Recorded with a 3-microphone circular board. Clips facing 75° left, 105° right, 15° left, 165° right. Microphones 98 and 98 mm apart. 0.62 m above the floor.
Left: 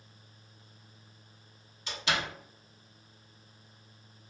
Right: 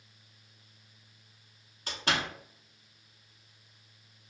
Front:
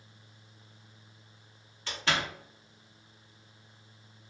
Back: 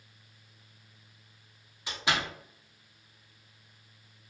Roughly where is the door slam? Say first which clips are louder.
Right 1 dB, even; right.